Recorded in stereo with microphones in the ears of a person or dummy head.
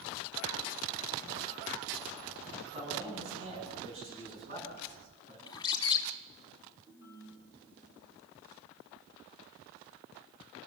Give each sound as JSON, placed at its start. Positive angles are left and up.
{"t": 2.7, "sound": "a man speaking", "side_deg": -35, "distance_m": 8.5}
{"t": 5.5, "sound": "a bird", "side_deg": 25, "distance_m": 1.8}
{"t": 6.9, "sound": "a ringtone", "side_deg": -20, "distance_m": 7.5}